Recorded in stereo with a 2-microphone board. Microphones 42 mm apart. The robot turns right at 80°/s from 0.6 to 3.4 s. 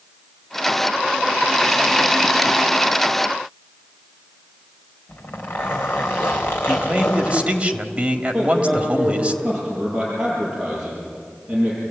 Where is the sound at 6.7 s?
25° right (ahead or behind), 1.8 m.